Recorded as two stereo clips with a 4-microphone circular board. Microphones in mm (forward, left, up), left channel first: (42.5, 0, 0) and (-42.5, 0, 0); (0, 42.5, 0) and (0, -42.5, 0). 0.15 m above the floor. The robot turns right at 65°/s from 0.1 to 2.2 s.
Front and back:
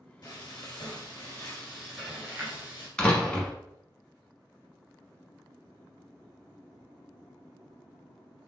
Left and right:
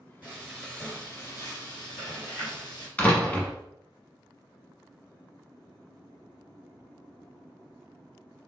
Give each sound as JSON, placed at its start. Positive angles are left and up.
{"t": 0.2, "sound": "frying", "azimuth_deg": -20, "distance_m": 2.0}
{"t": 3.0, "sound": "a door slam", "azimuth_deg": 50, "distance_m": 0.9}